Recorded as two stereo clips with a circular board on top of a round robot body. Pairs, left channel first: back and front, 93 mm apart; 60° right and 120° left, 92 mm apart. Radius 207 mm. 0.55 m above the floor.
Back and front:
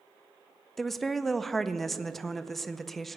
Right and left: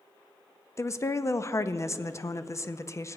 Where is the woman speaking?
95° right, 0.7 m.